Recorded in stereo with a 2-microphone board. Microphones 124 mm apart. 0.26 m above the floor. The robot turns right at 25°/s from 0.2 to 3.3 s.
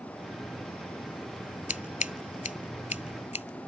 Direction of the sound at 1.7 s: 75° left (ahead or behind).